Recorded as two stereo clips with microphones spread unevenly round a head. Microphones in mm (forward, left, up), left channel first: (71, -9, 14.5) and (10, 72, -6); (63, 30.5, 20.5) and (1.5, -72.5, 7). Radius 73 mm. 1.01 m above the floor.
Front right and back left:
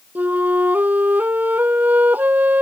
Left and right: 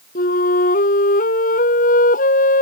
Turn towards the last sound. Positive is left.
turn(degrees=50)